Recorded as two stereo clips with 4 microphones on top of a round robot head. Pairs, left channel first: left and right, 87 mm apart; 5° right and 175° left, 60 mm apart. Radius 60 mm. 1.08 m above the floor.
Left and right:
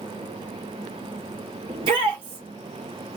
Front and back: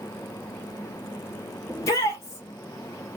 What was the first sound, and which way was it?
A shout, 50° right.